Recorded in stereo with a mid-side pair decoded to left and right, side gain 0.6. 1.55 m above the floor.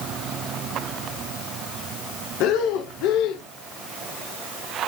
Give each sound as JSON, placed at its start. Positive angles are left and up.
{"t": 2.4, "sound": "breathing", "azimuth_deg": 65, "distance_m": 0.6}